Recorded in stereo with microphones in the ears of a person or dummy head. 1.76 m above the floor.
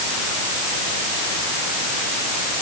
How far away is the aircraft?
I don't hear an aircraft.